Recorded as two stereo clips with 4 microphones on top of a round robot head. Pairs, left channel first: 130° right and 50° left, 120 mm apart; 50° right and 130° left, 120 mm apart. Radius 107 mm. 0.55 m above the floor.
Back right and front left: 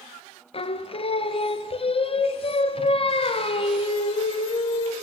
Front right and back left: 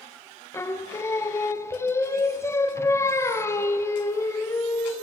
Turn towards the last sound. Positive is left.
turn(degrees=-110)